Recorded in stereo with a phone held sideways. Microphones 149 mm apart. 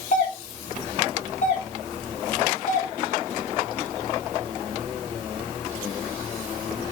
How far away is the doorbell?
About 3 m.